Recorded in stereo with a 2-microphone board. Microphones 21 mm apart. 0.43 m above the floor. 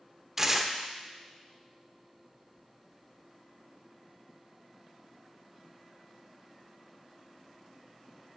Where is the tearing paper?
15° right (ahead or behind), 0.5 m.